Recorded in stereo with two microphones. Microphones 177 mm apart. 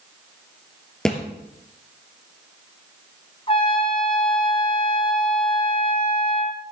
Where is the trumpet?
30° left (ahead or behind), 1.0 m.